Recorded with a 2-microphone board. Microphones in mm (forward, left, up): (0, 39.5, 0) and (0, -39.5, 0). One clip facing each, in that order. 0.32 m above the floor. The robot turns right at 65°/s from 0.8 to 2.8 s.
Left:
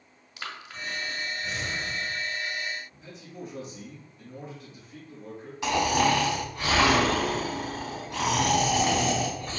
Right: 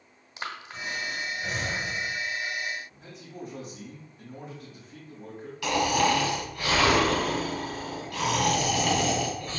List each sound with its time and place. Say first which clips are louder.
0.4 s breathing: right 2 dB; 25° right (ahead or behind), 1.0 m; by 2.1 s 35° right (ahead or behind), 1.0 m
2.9 s a man speaking: even; 45° right (ahead or behind), 2.5 m
5.6 s snoring: left 1 dB; 25° left (ahead or behind), 1.5 m